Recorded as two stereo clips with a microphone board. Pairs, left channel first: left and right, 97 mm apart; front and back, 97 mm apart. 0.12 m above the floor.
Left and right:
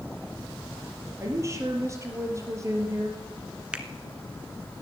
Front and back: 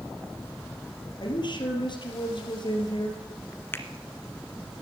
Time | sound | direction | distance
1.2 | a woman speaking | 30° right | 3.5 m
3.7 | a finger snap | 25° right | 1.3 m